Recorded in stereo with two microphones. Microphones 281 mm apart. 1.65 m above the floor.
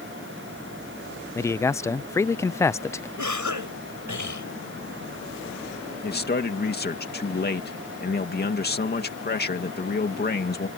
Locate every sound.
1.4 s a man speaking: 10° left (ahead or behind)
3.2 s a cough: 85° right
6.0 s a man speaking: 35° left (ahead or behind)